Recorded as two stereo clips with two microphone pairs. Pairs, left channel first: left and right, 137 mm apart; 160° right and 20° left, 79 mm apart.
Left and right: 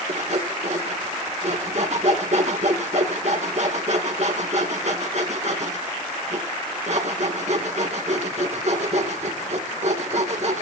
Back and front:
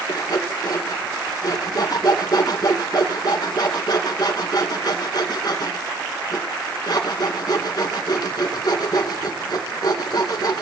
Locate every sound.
0.1 s sawing: 130° right, 2.5 m